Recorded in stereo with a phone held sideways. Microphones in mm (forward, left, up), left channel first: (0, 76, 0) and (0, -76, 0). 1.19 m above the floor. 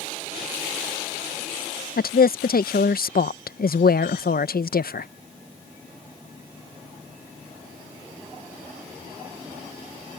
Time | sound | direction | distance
2.0 | a woman speaking | 75° left (ahead or behind) | ?